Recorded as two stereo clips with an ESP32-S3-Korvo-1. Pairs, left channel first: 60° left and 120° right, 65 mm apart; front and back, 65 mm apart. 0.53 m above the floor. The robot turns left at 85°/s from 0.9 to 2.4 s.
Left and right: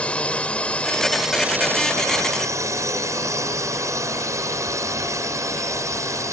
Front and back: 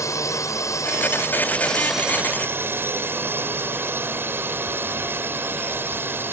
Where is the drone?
10° right; by 6.3 s 135° right.